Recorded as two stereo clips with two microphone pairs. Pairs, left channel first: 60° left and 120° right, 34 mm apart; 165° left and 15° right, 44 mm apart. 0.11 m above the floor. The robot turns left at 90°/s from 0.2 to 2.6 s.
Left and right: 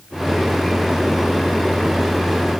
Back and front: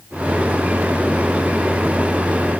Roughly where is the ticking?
No ticking in this recording.